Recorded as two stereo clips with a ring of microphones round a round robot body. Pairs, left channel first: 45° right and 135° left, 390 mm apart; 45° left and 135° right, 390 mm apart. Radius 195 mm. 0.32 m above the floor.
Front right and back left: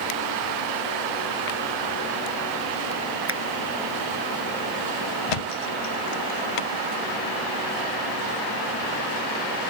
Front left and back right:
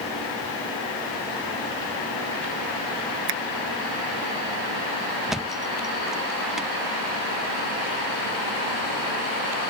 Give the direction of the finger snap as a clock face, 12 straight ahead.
6 o'clock.